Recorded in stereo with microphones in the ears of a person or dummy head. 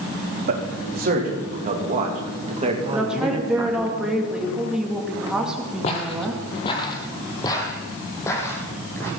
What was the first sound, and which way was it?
A man speaking, 50° right (ahead or behind).